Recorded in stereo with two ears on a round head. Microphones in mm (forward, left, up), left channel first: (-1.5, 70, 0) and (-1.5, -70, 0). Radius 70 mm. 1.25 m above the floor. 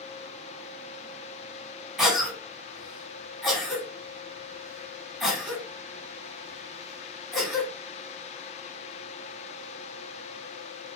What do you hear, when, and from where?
2.0 s a cough: 5° right (ahead or behind), 2.5 m